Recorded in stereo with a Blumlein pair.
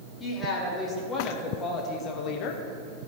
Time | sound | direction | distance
0.2 | a woman speaking | 20° left | 2.5 m